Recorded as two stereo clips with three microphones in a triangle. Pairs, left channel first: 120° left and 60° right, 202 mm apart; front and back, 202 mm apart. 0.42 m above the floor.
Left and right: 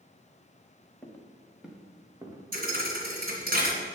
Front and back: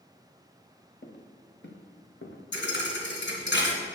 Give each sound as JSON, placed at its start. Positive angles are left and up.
{"t": 1.0, "sound": "footsteps", "azimuth_deg": 40, "distance_m": 2.5}
{"t": 2.5, "sound": "a thud", "azimuth_deg": -20, "distance_m": 2.5}